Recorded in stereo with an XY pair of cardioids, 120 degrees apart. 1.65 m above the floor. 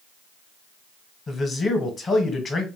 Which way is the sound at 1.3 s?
30° left.